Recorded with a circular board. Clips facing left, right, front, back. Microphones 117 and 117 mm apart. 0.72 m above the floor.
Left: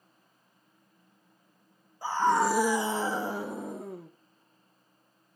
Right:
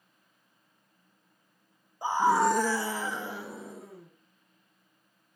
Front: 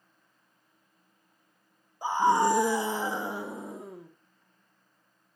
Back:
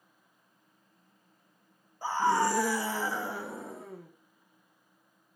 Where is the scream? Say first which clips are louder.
Right 1 dB, front 3 dB; 50° right, 1.1 m; by 4.1 s 70° left, 1.9 m.